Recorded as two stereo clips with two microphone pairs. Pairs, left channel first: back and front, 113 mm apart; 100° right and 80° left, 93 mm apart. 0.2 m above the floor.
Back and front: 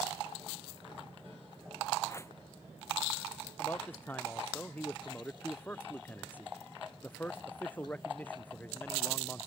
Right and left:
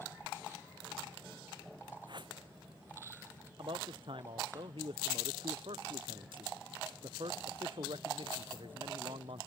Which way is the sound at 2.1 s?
115° left.